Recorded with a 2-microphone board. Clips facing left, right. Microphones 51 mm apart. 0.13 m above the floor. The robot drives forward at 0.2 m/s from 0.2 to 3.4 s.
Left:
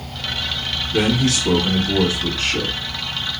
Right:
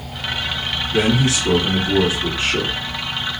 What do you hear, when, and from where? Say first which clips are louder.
0.9 s a man speaking: right 1 dB; 20° right (ahead or behind), 1.2 m